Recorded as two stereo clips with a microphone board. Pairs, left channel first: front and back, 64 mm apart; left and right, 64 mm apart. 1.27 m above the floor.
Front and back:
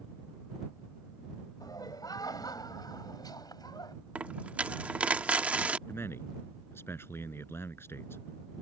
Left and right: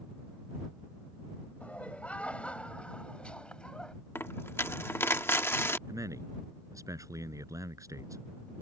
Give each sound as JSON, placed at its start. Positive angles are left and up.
{"t": 1.6, "sound": "laughter", "azimuth_deg": 20}
{"t": 4.2, "sound": "a dropped coin", "azimuth_deg": 120}
{"t": 5.9, "sound": "a man speaking", "azimuth_deg": -55}